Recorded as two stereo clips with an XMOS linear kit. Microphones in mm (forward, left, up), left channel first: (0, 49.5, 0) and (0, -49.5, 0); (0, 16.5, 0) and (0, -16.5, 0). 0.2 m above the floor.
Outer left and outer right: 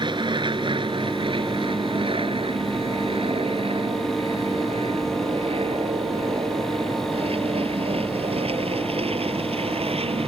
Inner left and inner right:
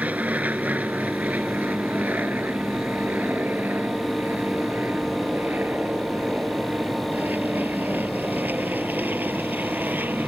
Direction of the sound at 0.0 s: 50° right (ahead or behind).